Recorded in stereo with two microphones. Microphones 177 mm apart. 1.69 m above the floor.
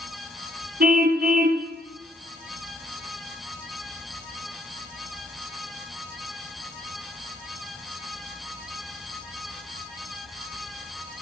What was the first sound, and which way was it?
A car horn, 60° right (ahead or behind).